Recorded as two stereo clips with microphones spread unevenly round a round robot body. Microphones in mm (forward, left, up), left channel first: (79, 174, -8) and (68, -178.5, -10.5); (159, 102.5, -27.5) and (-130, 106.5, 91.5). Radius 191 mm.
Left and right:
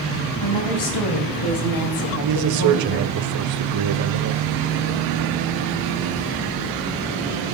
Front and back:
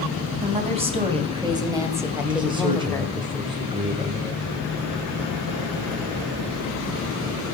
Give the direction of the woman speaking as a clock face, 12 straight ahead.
9 o'clock.